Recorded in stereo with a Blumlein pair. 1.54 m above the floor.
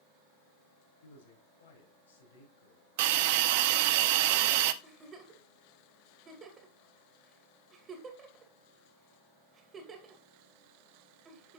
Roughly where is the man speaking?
Ahead left.